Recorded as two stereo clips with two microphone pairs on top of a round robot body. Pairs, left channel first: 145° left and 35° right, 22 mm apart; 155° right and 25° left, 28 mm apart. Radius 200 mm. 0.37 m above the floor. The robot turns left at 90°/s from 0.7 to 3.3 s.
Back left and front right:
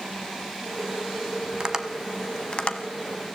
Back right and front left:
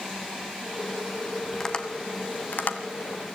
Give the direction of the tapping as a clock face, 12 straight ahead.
3 o'clock.